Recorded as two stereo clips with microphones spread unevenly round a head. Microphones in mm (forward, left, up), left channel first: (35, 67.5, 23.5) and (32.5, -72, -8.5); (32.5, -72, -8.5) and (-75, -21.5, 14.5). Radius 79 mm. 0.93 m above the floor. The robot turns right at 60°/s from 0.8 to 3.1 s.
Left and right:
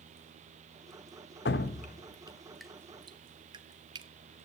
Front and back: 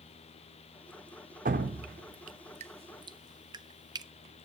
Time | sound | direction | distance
1.4 | dripping | 115° left | 0.9 m